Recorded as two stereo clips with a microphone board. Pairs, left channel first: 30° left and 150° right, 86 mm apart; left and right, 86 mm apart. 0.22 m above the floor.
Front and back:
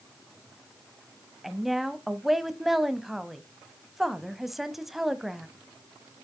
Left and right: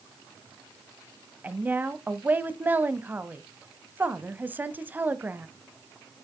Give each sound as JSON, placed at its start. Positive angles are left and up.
{"t": 1.4, "sound": "a woman speaking", "azimuth_deg": -65, "distance_m": 1.0}